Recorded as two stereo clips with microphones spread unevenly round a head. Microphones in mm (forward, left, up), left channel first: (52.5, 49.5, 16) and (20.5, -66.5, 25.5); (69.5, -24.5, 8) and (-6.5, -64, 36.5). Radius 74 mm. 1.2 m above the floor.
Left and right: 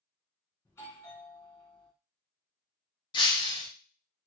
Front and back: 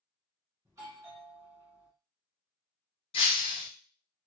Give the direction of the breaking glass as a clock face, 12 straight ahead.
11 o'clock.